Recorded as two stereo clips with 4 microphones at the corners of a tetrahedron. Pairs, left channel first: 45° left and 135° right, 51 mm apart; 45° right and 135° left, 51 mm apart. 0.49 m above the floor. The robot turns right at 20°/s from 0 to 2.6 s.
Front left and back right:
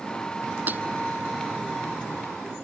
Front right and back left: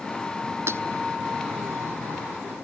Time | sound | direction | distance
0.7 | breaking glass | 175° left | ?